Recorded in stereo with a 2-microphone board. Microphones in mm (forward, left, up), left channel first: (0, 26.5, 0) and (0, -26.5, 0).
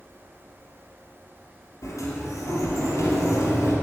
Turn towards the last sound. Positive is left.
turn(degrees=70)  # may be behind; listen again after turning